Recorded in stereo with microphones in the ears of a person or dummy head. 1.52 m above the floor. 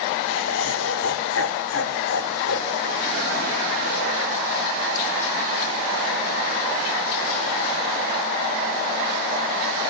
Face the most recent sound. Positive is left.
turn(degrees=70)  # may be behind; listen again after turning